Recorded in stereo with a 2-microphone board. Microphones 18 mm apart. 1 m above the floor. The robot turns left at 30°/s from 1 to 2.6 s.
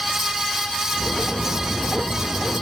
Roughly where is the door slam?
No door slam in this recording.